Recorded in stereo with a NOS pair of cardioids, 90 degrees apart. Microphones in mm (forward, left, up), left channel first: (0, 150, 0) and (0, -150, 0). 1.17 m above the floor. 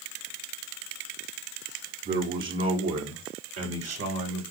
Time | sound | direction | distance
2.0 | a man speaking | 35° right | 2.5 m